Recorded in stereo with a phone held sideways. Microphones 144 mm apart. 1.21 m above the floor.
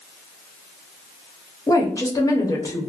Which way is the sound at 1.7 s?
20° left (ahead or behind).